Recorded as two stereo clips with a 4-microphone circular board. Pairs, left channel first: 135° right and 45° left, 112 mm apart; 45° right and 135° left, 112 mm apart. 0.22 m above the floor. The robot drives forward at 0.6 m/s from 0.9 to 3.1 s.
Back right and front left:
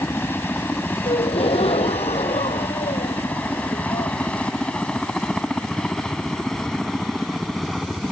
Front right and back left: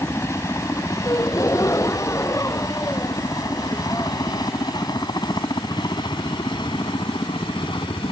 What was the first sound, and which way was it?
A helicopter, 85° right.